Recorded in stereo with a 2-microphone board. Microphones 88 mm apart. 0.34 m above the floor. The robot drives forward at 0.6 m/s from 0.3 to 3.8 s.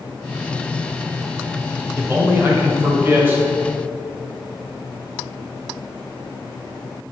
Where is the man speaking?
25° right (ahead or behind), 1.3 m; by 3.4 s 20° right (ahead or behind), 1.7 m.